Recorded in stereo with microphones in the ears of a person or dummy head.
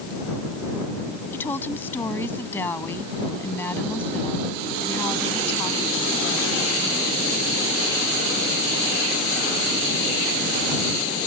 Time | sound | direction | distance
1.3 | a woman speaking | 10° left (ahead or behind) | ?